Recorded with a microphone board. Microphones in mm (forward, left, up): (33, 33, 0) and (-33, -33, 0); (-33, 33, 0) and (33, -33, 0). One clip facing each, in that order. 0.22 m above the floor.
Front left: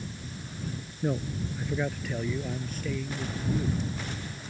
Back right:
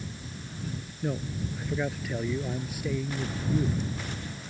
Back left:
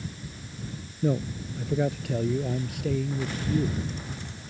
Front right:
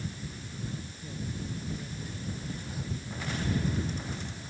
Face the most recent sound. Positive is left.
turn(degrees=155)